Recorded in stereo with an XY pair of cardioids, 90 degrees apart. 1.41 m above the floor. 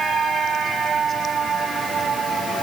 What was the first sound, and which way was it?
Only background noise.